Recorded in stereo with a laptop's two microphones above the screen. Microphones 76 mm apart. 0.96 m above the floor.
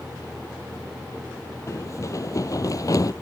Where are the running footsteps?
40° left (ahead or behind); by 3.1 s 50° left (ahead or behind).